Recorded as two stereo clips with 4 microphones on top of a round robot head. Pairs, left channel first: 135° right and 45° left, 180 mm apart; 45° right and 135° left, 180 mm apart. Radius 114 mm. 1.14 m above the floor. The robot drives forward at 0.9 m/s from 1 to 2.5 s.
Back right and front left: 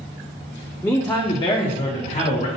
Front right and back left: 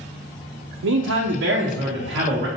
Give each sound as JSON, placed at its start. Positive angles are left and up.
{"t": 0.8, "sound": "a man speaking", "azimuth_deg": 140, "distance_m": 0.6}